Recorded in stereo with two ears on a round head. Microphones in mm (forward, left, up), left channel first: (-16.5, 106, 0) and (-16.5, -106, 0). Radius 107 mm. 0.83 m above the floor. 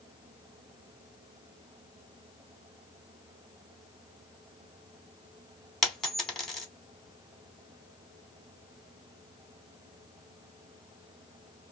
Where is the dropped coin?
Centre (ahead or behind), 0.8 m.